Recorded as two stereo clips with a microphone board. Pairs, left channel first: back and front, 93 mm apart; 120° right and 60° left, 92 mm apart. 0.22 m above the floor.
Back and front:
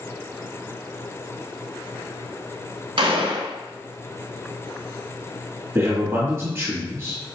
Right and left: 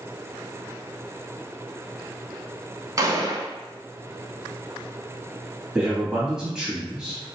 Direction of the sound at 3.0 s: 15° left.